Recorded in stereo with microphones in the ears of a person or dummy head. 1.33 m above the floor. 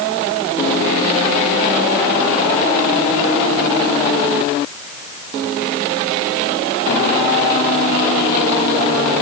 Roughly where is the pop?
No pop in this recording.